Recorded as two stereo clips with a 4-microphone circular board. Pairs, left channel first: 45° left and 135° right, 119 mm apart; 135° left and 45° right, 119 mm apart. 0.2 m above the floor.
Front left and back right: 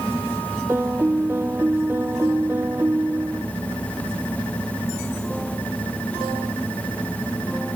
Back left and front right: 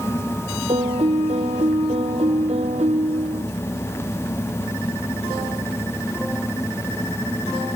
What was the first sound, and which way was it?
A piano, 65° right.